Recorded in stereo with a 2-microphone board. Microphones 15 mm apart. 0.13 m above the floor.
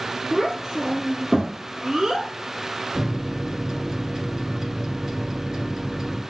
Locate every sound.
0.3 s a child speaking: 55° right (ahead or behind), 2.5 m
3.0 s a microwave: 35° right (ahead or behind), 1.9 m